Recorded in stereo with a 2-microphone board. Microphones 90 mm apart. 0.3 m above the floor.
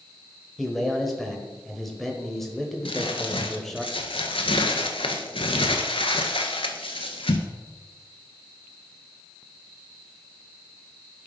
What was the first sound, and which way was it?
A man speaking, centre (ahead or behind).